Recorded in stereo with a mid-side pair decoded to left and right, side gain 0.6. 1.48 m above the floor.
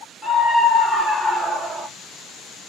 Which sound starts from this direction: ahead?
A scream, at 0.2 s.